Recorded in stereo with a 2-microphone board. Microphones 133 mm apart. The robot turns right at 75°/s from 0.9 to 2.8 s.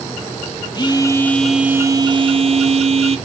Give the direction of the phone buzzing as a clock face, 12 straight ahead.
7 o'clock.